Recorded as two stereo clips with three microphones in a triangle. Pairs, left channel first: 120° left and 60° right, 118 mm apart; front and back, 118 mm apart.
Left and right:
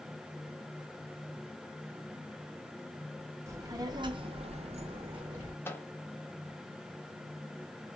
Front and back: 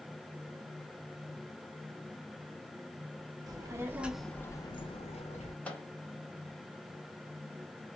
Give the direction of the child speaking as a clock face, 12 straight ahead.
4 o'clock.